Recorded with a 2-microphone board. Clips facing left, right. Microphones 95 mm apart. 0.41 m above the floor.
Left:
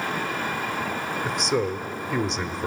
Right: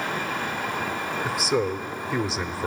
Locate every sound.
1.2 s a man speaking: centre (ahead or behind), 0.9 m